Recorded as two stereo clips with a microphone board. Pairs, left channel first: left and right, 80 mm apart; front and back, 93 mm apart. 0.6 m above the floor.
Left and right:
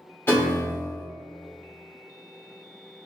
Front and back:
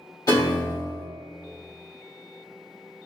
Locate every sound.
0.3 s a piano: 35° left, 1.6 m